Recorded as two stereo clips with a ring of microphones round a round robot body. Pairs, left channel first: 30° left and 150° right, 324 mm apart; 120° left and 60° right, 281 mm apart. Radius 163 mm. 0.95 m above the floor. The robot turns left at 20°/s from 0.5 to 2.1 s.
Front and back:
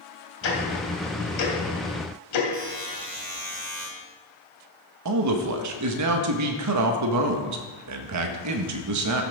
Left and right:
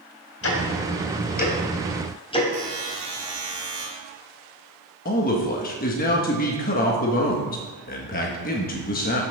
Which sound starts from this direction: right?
A buzzer, at 2.5 s.